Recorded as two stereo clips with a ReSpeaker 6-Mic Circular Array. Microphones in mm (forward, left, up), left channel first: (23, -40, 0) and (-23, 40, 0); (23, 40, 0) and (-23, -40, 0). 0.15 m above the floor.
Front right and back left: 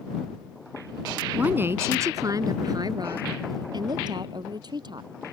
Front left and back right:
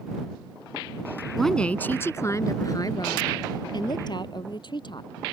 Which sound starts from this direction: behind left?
A woman speaking, at 1.4 s.